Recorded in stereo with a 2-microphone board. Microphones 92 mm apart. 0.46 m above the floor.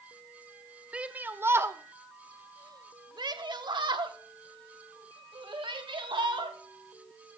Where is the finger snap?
No finger snap in this recording.